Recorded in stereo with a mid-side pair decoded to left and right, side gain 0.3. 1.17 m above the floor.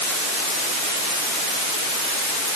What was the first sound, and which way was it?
Only background noise.